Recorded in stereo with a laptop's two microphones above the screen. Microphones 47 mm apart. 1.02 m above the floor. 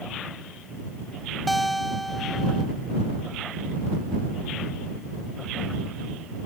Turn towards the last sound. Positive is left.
turn(degrees=0)  # may be behind; listen again after turning